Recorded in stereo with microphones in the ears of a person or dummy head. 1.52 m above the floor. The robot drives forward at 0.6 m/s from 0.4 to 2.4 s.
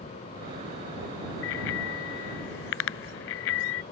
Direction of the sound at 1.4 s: 80° left.